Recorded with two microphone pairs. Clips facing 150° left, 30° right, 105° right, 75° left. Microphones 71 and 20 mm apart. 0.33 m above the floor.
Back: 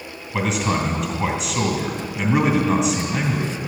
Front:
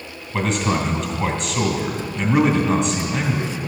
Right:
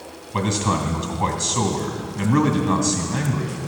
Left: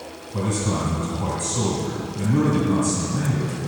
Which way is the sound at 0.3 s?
125° right.